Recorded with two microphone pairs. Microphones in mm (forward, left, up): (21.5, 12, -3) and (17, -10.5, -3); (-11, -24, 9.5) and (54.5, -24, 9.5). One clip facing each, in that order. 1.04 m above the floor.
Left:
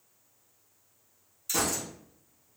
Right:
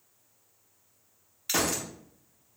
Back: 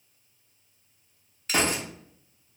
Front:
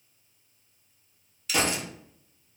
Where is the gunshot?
135° right, 0.5 m.